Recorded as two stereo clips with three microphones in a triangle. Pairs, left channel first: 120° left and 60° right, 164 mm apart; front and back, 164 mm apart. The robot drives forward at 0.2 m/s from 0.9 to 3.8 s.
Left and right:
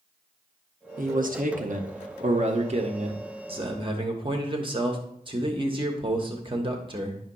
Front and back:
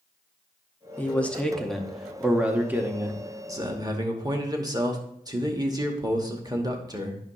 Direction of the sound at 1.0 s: 80° right.